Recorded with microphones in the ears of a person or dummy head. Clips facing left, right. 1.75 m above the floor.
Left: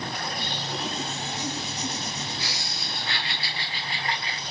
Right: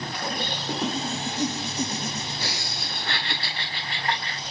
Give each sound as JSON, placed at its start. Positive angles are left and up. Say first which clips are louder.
{"t": 0.2, "sound": "laughter", "louder": "right 3 dB", "side_deg": -45, "distance_m": 3.5}